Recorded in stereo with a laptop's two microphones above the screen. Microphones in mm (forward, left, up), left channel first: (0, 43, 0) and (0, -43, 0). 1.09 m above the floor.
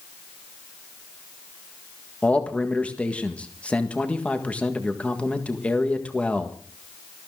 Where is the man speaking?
15° left (ahead or behind), 1.6 m.